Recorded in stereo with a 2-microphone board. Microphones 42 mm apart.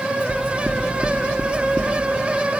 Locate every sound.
0.3 s knocking: 35° right (ahead or behind), 0.6 m